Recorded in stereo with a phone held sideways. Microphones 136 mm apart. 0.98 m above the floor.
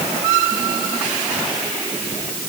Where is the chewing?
I don't hear chewing.